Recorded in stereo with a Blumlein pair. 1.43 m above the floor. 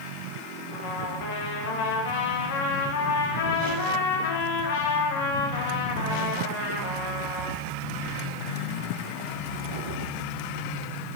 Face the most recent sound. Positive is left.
turn(degrees=50)